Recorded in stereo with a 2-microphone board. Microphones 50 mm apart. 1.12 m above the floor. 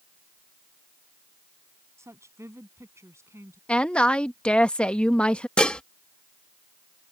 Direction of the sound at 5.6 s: 20° left (ahead or behind).